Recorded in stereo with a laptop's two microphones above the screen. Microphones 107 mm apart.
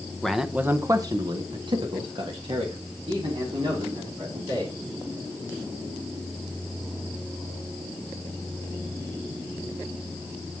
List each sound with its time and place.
0.2 s a man speaking: 5° left (ahead or behind), 0.7 m; by 4.7 s 50° right (ahead or behind), 3.5 m